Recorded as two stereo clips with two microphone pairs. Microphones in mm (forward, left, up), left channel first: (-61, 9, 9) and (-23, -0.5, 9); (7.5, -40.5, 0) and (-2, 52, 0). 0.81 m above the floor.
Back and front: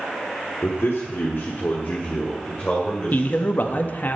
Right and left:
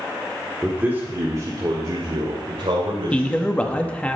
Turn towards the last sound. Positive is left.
turn(degrees=-160)